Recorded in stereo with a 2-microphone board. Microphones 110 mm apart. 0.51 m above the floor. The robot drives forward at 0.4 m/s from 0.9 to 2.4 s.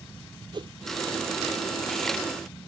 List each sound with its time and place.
0.5 s a whoosh: 45° right (ahead or behind)